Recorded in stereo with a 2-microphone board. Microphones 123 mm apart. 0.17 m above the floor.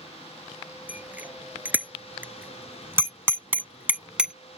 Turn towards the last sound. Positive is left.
turn(degrees=-5)  # may be behind; listen again after turning